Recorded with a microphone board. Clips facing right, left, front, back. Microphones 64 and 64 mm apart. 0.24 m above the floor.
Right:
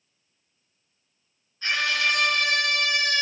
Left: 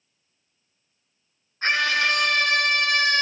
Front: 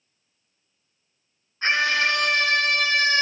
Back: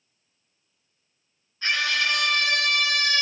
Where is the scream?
55° left, 4 m.